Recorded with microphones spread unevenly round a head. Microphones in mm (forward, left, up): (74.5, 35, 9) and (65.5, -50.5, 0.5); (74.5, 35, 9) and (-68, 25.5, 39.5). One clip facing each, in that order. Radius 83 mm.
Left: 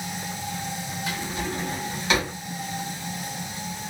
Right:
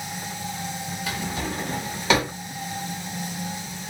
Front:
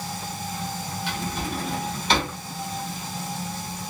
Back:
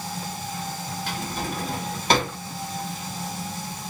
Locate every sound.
1.1 s a drawer: 120° right, 1.1 m